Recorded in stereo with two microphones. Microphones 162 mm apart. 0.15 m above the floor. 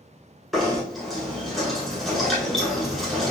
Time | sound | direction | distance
0.5 | knocking | centre (ahead or behind) | 1.3 m